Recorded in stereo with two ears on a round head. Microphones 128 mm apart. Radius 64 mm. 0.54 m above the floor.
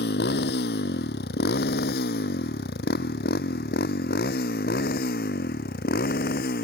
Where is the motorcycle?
80° left; by 6.7 s 70° left (ahead or behind).